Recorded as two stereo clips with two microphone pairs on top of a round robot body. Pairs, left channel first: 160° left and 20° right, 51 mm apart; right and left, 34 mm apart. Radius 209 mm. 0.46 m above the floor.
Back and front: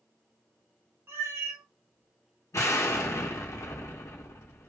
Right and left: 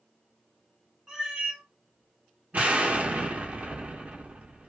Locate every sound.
1.1 s a cat meowing: 20° left, 1.0 m
2.5 s an explosion: 135° left, 0.8 m